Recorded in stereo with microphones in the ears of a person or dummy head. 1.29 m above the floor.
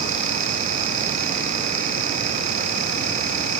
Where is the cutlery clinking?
I don't hear cutlery clinking.